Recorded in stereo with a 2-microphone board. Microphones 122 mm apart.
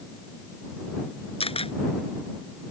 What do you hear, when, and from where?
1.4 s a camera shutter: 50° left (ahead or behind)